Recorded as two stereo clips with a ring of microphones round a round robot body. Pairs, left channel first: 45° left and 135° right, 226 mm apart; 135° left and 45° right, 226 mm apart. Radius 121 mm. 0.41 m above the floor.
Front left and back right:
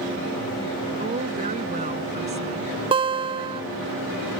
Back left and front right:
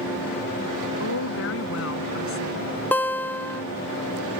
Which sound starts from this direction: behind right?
A guitar, at 2.9 s.